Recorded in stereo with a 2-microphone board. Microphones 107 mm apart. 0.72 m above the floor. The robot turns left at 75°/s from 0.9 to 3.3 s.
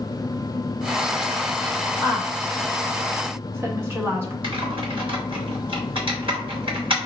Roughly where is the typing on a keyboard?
Right.